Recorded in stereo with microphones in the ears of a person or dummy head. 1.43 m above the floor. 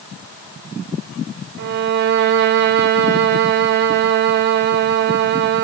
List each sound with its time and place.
1.6 s a violin: 50° right (ahead or behind), 0.5 m